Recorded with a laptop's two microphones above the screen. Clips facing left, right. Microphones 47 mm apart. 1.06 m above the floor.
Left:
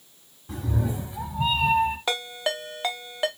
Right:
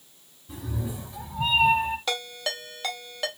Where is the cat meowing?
55° left (ahead or behind), 1.2 m; by 2.0 s 30° right (ahead or behind), 1.1 m.